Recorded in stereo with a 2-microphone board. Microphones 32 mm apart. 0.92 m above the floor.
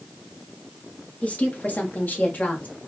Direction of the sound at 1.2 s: 45° left (ahead or behind).